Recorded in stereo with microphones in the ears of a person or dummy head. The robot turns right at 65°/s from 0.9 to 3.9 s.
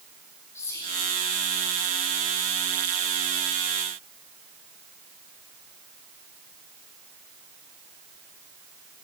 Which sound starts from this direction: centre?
Whispering, at 0.6 s.